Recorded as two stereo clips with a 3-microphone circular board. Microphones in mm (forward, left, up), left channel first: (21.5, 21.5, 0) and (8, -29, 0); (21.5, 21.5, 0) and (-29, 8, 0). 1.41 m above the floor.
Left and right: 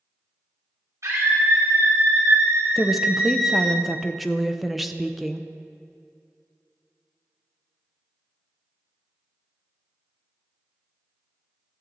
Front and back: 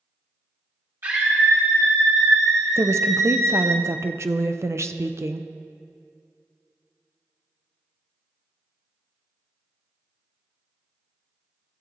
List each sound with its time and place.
1.0 s a scream: 130° right, 1.9 m; by 3.8 s 155° left, 0.9 m
2.8 s a woman speaking: 165° left, 0.6 m